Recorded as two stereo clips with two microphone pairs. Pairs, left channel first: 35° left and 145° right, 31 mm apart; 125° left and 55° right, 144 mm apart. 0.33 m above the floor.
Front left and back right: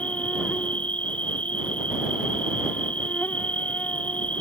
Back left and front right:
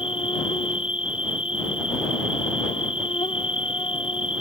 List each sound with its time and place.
0.0 s an insect: 75° left